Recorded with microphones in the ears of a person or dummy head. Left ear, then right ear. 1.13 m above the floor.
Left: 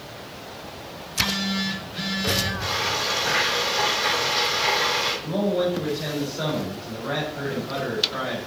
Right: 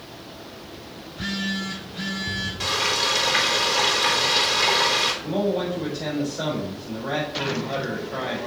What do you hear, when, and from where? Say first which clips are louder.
1.0 s a phone buzzing: left 4 dB; 15° left (ahead or behind), 5.5 m
2.6 s frying: right 2 dB; 50° right (ahead or behind), 4.5 m
5.2 s a man speaking: left 1 dB; 5° right (ahead or behind), 4.5 m